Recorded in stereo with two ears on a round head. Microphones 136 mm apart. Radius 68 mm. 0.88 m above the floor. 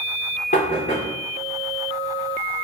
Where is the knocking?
45° left (ahead or behind), 0.9 m.